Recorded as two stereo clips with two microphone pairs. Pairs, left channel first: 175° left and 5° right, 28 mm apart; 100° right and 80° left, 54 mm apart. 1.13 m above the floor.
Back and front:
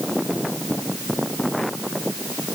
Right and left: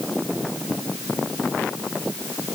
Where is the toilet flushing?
I don't hear a toilet flushing.